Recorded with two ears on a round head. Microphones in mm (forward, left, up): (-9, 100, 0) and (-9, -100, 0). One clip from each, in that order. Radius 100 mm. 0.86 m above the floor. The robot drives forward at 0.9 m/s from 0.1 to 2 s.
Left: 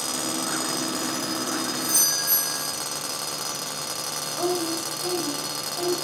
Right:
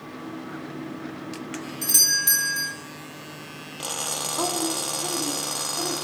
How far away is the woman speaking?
About 2 m.